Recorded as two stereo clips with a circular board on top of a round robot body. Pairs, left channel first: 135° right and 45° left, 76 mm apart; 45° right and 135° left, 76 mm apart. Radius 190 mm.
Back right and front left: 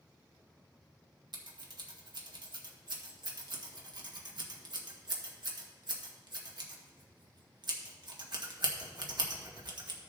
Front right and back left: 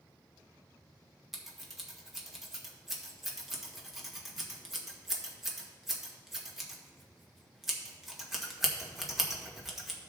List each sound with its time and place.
1.3 s scissors: 45° left, 1.6 m